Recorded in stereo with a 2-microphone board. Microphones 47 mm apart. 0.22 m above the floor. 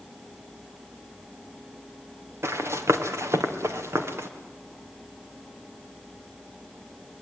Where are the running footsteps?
75° right (ahead or behind), 2.5 m; by 4.3 s 70° right (ahead or behind), 3 m.